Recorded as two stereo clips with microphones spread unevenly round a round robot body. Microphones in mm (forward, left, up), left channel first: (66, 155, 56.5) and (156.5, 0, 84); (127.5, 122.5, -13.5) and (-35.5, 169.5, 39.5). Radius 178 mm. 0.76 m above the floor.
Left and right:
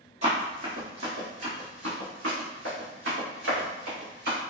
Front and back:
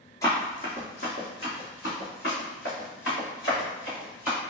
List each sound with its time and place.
0.2 s running footsteps: 105° right, 1.0 m; by 4.4 s 75° right, 3.5 m